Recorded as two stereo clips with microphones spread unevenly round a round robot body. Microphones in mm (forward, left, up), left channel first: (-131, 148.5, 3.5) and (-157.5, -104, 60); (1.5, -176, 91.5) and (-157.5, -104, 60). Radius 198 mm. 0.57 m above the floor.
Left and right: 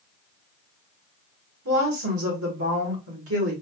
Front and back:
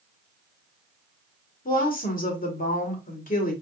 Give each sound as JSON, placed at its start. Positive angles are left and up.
{"t": 1.6, "sound": "a woman speaking", "azimuth_deg": -60, "distance_m": 1.8}